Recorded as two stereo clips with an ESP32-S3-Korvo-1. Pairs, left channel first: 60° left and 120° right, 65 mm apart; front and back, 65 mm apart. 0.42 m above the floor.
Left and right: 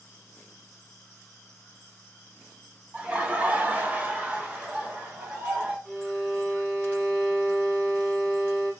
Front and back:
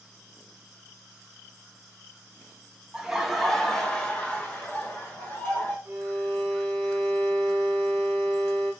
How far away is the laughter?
About 0.8 m.